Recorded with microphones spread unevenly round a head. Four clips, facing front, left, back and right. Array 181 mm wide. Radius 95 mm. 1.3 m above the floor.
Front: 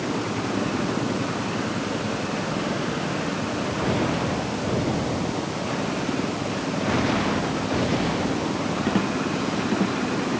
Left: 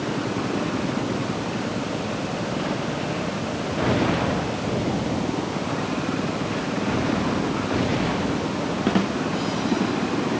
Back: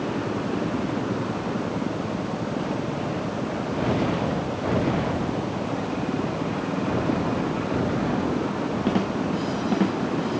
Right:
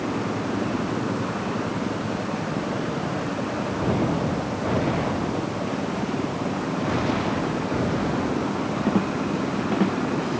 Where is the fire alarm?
No fire alarm in this recording.